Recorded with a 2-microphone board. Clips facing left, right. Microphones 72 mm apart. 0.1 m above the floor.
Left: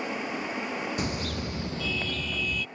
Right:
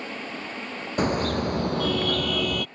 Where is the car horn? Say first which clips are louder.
Right 8 dB; 45° right (ahead or behind); by 2.7 s 65° right (ahead or behind).